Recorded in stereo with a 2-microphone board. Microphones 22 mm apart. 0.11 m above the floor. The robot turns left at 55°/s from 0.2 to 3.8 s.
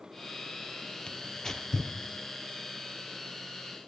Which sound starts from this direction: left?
Tearing paper, at 1.1 s.